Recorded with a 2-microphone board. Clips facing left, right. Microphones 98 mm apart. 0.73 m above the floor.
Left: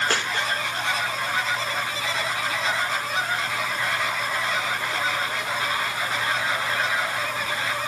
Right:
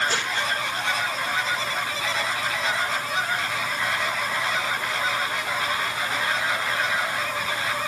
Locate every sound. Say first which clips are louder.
0.1 s a dropped coin: left 1 dB; 80° left, 5.5 m